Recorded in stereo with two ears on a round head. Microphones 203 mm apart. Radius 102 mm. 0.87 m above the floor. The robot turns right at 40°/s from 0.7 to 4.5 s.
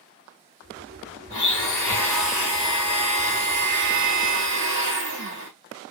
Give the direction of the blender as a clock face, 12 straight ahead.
7 o'clock.